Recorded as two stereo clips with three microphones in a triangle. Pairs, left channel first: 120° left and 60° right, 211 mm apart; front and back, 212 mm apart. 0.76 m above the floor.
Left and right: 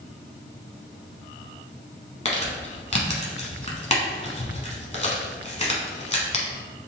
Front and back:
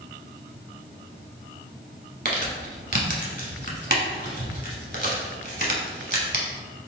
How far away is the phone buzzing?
I don't hear a phone buzzing.